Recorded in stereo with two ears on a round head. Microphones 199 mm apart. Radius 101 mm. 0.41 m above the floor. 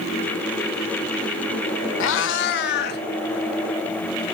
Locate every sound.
2.0 s a cat meowing: 70° left (ahead or behind), 0.7 m; by 3.0 s 55° left (ahead or behind), 1.6 m